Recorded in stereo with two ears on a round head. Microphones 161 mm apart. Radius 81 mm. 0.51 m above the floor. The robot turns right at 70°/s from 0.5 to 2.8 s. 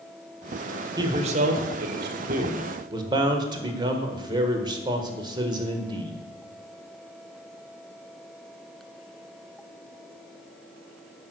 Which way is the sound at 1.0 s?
155° right.